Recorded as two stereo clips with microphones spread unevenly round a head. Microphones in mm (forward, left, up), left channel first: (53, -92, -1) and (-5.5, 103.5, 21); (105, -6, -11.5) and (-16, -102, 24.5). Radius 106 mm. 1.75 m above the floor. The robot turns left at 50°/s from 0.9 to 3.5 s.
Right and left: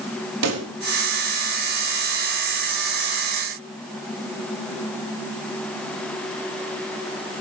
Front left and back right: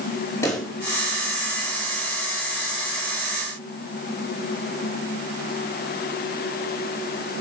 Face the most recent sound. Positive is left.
turn(degrees=-15)